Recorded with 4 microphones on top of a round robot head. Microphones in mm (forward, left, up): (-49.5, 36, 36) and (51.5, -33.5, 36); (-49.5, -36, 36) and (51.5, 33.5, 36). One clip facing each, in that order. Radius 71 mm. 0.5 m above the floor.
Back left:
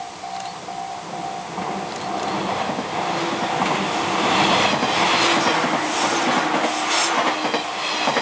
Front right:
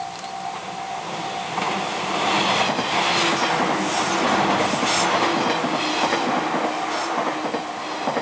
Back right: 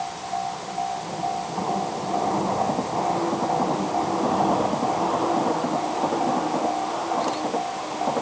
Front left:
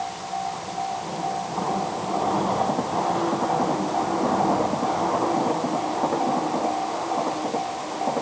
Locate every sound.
Only background noise.